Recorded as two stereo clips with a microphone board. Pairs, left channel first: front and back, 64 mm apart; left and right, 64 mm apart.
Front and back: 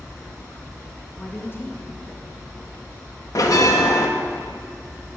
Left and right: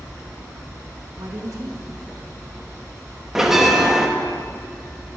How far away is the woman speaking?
About 2.5 m.